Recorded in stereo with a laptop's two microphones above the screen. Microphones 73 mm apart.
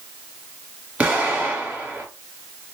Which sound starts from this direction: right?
An explosion, at 1.0 s.